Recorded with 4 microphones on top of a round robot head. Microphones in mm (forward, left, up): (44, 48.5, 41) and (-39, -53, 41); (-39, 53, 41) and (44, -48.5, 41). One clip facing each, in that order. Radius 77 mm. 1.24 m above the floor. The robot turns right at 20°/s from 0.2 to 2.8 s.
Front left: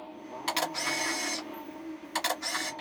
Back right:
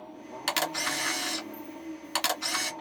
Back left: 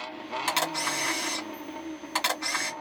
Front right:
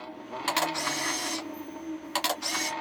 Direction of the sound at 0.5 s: 160° right.